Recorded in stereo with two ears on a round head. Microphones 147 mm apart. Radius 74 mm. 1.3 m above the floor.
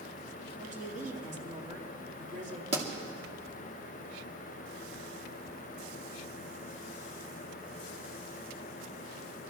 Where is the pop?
30° right (ahead or behind), 2 m.